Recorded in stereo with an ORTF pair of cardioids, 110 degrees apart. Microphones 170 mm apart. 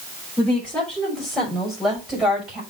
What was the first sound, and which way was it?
A woman speaking, 10° left.